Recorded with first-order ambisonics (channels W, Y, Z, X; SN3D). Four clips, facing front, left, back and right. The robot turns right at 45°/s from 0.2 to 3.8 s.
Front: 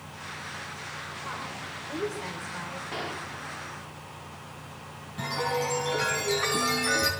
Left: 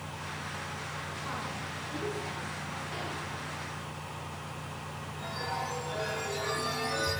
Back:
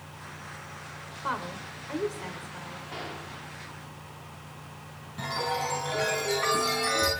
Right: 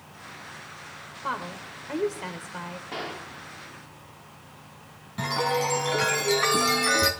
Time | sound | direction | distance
1.2 | a woman speaking | 130° right | 2.5 m
2.9 | a gunshot | 55° right | 1.4 m
5.2 | a chime | 85° right | 4.5 m